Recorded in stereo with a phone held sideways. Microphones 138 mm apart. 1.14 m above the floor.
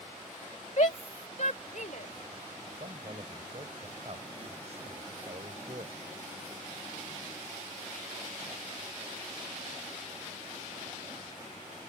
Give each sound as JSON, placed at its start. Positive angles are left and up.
{"t": 0.8, "sound": "a shout", "side_deg": 60}
{"t": 2.8, "sound": "a man speaking", "side_deg": -50}